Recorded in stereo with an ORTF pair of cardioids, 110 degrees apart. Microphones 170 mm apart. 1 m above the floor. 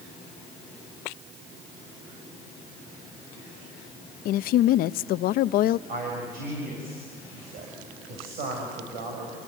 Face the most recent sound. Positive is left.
turn(degrees=-70)